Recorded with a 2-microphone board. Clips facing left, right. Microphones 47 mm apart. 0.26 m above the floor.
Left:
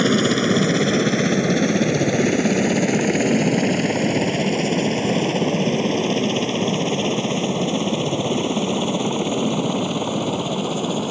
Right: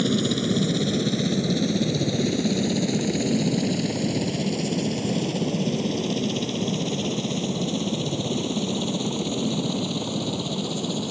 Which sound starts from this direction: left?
A helicopter, at 0.0 s.